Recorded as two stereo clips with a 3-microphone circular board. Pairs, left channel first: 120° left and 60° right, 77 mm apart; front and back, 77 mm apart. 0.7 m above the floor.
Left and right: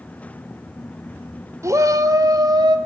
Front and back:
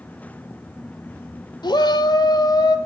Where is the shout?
15° right, 1.9 m; by 2.8 s 35° right, 2.0 m.